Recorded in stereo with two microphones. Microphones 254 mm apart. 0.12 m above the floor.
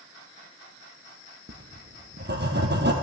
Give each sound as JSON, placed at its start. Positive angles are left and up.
{"t": 1.5, "sound": "writing", "side_deg": -40, "distance_m": 1.5}